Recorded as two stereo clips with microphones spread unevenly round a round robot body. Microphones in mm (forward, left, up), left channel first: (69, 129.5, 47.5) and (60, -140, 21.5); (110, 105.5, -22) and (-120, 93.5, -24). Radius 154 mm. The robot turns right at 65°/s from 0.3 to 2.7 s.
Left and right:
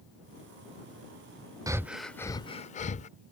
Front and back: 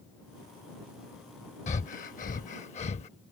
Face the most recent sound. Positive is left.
turn(degrees=35)